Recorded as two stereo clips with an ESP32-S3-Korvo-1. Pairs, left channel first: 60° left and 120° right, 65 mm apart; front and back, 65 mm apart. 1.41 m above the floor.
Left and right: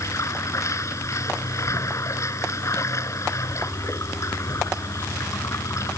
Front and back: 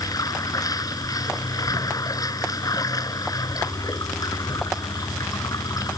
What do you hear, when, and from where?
0.0 s running water: 20° left